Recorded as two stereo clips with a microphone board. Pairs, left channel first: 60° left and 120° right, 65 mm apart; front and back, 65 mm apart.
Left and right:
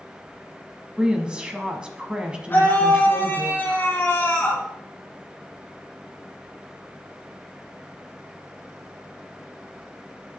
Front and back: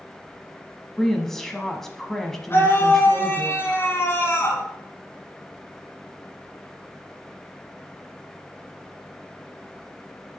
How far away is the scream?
About 1.9 m.